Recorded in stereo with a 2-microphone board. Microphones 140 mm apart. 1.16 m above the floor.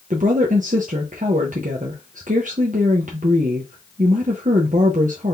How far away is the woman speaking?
About 0.9 m.